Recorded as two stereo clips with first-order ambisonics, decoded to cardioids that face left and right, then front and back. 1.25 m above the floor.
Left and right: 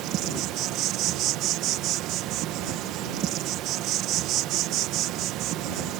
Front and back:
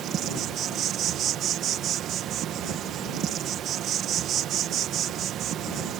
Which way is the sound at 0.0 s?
130° right.